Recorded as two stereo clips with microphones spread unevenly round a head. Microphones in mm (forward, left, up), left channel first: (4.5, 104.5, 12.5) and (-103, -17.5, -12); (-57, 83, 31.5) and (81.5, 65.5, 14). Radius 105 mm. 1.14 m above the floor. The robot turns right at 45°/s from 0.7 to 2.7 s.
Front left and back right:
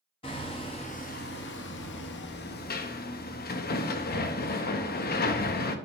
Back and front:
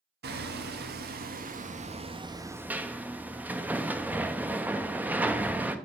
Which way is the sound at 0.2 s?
15° right.